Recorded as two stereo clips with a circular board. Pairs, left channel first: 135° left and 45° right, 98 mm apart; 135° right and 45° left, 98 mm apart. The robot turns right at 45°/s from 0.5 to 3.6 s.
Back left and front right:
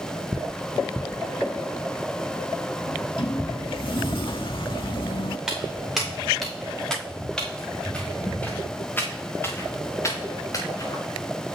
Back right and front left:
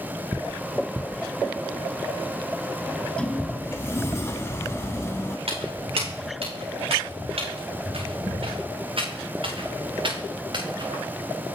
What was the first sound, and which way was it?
A sliding door, 130° left.